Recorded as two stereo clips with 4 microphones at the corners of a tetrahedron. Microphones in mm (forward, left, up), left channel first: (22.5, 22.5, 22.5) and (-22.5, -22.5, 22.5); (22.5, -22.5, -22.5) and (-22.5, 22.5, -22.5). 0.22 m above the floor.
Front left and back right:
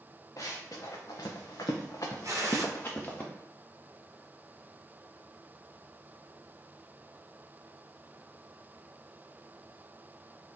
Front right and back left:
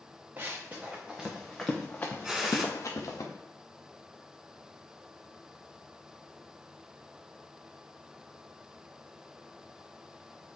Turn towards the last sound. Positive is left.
turn(degrees=-150)